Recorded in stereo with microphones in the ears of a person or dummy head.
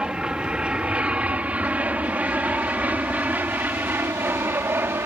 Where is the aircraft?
5° right (ahead or behind); by 5.1 s 10° right (ahead or behind).